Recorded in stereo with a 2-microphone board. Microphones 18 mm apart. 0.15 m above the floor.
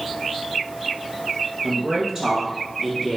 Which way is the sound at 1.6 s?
40° right (ahead or behind).